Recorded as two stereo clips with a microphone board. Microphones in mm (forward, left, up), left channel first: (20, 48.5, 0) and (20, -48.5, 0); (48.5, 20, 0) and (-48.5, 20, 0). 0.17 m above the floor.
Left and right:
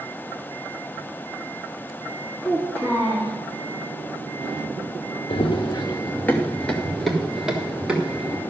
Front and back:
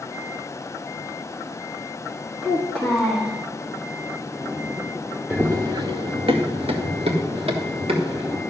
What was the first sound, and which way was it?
A child speaking, 165° left.